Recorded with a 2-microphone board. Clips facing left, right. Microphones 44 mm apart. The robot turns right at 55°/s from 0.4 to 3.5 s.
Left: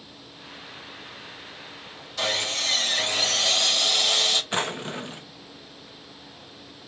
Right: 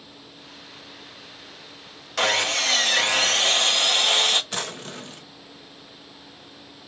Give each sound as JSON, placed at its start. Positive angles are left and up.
{"t": 2.2, "sound": "sawing", "azimuth_deg": -115, "distance_m": 1.0}
{"t": 4.5, "sound": "a drawer", "side_deg": 25, "distance_m": 0.5}